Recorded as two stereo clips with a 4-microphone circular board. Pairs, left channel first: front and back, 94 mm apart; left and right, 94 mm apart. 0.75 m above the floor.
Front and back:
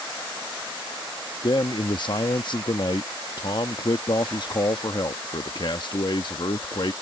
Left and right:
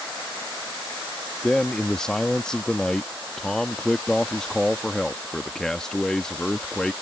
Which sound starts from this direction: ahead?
A man speaking, at 1.4 s.